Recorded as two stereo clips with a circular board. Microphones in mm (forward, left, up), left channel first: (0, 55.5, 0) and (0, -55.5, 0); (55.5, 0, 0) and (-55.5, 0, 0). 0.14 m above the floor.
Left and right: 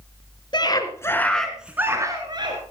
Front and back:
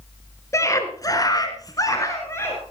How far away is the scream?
About 1.9 m.